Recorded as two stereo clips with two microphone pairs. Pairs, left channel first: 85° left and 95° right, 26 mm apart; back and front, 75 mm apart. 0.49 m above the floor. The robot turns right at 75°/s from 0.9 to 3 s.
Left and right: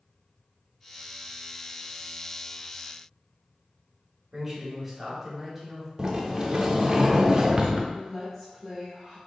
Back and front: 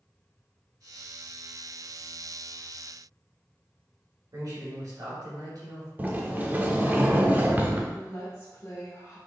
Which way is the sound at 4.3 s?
25° right.